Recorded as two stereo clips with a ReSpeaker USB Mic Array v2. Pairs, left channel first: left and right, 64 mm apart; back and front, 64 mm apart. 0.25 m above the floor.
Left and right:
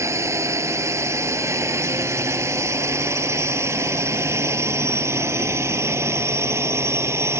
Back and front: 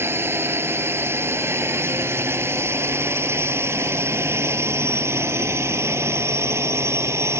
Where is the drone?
50° right; by 7.4 s 45° right.